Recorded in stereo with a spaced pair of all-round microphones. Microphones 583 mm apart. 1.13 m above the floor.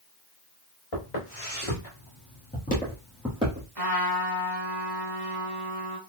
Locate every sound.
0.9 s footsteps: 50° left (ahead or behind), 2.5 m; by 3.7 s 15° right (ahead or behind), 1.9 m
3.8 s a trumpet: 40° right (ahead or behind), 1.3 m